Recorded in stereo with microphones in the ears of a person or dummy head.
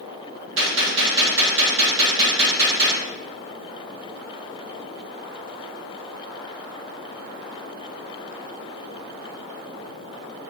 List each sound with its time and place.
0.6 s a gunshot: 60° right (ahead or behind), 1.2 m